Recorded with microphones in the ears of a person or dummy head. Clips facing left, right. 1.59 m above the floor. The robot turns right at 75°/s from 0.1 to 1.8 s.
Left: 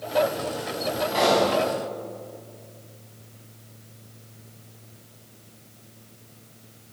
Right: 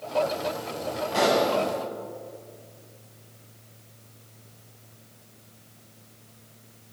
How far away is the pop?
About 9 m.